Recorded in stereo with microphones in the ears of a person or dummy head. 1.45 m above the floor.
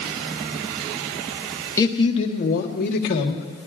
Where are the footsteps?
No footsteps in this recording.